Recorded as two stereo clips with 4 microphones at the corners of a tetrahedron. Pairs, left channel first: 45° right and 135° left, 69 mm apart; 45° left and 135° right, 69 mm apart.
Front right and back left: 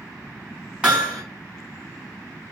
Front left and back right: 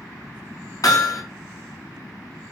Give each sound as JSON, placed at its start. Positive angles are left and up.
{"t": 0.8, "sound": "hammering", "azimuth_deg": 65, "distance_m": 2.0}